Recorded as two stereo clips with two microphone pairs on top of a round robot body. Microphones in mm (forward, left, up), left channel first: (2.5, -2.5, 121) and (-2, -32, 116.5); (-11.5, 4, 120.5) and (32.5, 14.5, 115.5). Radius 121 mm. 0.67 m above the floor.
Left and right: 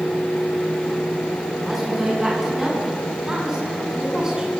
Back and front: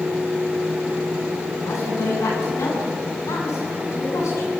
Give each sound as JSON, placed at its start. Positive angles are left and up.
{"t": 1.6, "sound": "a woman speaking", "azimuth_deg": -175, "distance_m": 8.5}